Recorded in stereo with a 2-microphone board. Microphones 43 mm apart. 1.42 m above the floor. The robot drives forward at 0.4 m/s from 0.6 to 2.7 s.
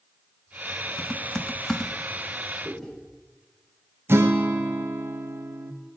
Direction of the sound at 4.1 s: 70° right (ahead or behind).